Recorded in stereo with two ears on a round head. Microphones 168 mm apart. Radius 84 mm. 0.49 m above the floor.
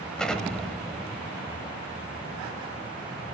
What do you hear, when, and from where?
0.2 s an explosion: 5° left (ahead or behind), 1.3 m